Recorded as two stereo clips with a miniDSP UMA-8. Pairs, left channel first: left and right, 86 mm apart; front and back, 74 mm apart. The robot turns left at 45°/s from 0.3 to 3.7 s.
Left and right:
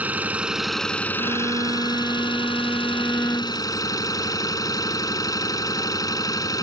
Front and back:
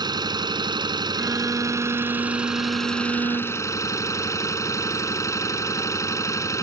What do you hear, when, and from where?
0.0 s an engine running: 160° right; by 6.6 s 45° left
1.2 s a violin: 110° right; by 3.7 s 140° left